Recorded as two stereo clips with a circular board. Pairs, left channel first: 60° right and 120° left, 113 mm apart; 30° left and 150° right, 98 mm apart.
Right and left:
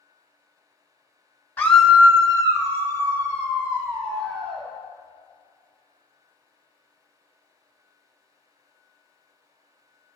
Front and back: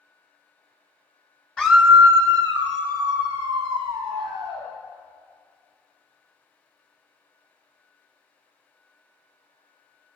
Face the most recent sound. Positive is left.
turn(degrees=170)